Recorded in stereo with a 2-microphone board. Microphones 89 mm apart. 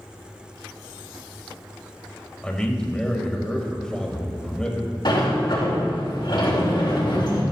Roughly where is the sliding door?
Left.